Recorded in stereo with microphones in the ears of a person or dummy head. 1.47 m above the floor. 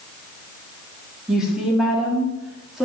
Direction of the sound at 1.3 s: Centre (ahead or behind).